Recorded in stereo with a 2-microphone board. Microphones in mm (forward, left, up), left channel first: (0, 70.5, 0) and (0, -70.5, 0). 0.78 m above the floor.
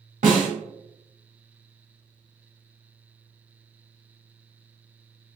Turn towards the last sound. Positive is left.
turn(degrees=-80)